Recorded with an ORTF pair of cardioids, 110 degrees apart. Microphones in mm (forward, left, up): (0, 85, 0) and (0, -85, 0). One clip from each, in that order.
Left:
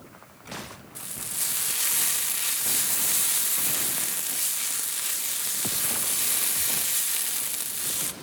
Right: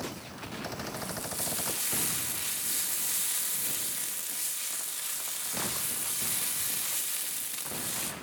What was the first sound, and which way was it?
Frying, 40° left.